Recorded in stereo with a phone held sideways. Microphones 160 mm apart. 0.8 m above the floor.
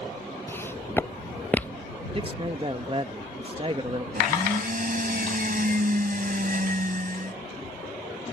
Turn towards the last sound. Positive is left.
turn(degrees=-60)  # may be behind; listen again after turning